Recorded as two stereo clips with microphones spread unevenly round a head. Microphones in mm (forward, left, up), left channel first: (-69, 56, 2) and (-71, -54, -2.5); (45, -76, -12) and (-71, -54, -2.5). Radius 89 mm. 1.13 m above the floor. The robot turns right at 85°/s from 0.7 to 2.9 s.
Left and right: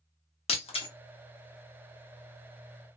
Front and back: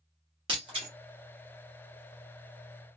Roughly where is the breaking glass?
Behind left.